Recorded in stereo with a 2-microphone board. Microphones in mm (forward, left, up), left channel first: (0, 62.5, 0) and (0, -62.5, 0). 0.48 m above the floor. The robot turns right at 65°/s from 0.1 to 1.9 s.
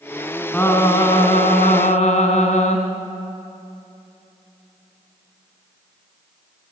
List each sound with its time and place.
0.5 s singing: 10° left, 2.5 m; by 2.8 s 100° left, 2.5 m